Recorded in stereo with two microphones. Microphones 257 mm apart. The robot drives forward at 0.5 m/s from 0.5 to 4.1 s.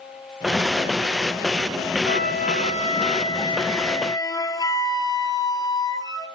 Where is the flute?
40° left (ahead or behind), 0.6 m; by 6.3 s 15° left (ahead or behind), 1.4 m.